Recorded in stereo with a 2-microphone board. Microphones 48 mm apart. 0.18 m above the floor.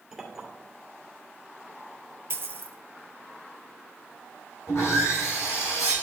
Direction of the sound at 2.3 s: 55° right (ahead or behind).